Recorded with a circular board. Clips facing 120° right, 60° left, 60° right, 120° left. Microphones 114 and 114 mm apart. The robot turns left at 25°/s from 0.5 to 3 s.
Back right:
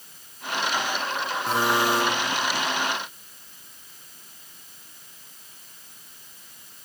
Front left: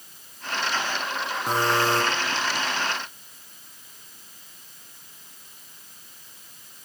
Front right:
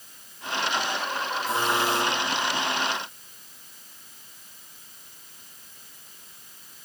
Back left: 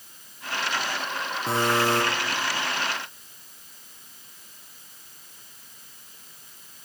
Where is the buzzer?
135° left, 8.5 m; by 2.0 s 120° left, 8.5 m.